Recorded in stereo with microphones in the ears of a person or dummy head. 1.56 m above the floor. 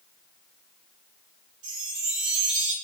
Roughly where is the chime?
Right.